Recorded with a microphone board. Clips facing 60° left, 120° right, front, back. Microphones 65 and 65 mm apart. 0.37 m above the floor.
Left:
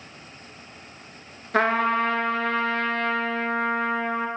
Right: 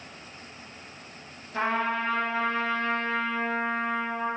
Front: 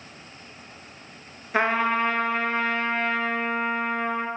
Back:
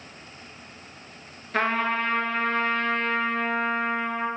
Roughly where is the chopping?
No chopping in this recording.